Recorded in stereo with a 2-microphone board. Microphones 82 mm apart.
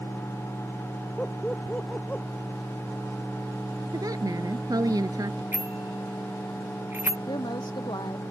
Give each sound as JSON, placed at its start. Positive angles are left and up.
{"t": 1.2, "sound": "laughter", "side_deg": 15}
{"t": 3.9, "sound": "a woman speaking", "side_deg": -50}
{"t": 5.5, "sound": "a bicycle bell", "side_deg": -25}
{"t": 7.3, "sound": "a woman speaking", "side_deg": 65}